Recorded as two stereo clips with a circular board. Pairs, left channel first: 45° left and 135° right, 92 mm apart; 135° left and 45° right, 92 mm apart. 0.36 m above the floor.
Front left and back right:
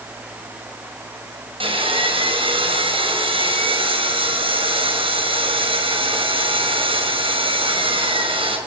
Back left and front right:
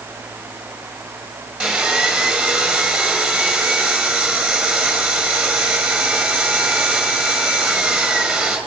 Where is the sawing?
125° right, 6 m.